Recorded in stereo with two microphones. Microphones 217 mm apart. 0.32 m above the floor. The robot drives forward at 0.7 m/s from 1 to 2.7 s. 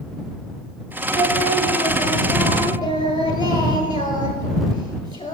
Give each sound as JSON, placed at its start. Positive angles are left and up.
{"t": 1.1, "sound": "singing", "side_deg": 20, "distance_m": 1.6}